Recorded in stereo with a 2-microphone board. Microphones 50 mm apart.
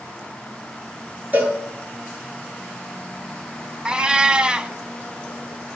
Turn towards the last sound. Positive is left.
turn(degrees=-20)  # may be behind; listen again after turning